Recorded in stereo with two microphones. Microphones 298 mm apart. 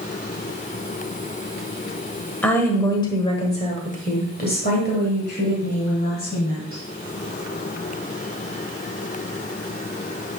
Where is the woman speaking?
5° left (ahead or behind), 1.5 m; by 6.8 s 35° left (ahead or behind), 2.5 m.